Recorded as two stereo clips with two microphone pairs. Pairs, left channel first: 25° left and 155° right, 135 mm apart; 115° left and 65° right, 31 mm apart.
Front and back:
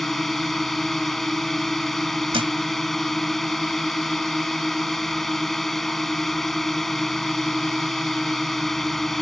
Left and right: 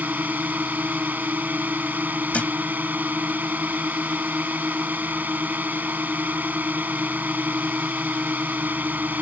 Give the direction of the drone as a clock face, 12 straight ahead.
2 o'clock.